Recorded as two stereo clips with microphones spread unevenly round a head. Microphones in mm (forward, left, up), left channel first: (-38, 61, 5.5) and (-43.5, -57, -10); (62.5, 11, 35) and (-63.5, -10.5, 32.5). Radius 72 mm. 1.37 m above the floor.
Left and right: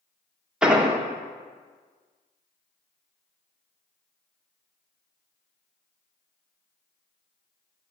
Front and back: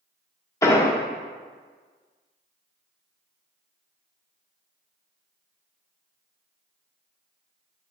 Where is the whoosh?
I don't hear a whoosh.